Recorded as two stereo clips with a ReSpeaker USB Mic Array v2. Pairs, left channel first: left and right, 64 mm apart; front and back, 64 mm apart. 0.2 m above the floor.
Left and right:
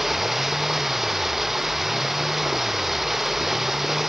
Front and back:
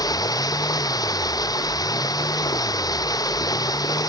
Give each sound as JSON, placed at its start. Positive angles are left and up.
{"t": 0.0, "sound": "running water", "azimuth_deg": -5}